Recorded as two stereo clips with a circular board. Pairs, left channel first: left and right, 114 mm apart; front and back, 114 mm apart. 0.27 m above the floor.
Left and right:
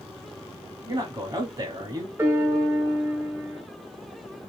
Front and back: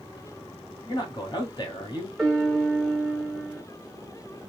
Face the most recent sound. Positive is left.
turn(degrees=-85)